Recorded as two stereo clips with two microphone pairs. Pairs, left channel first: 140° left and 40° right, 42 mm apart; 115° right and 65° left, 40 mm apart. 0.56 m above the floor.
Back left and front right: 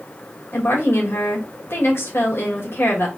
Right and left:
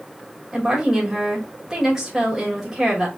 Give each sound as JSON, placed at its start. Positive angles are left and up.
{"t": 0.5, "sound": "a woman speaking", "azimuth_deg": 145, "distance_m": 1.9}